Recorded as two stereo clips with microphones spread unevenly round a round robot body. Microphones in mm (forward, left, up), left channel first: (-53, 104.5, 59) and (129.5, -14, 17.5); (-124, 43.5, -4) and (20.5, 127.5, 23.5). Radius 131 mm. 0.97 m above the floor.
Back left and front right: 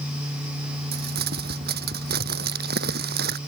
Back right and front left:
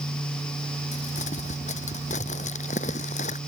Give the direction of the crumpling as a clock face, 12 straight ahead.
3 o'clock.